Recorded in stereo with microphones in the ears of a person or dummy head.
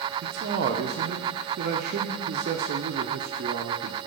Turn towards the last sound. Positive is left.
turn(degrees=-50)  # may be behind; listen again after turning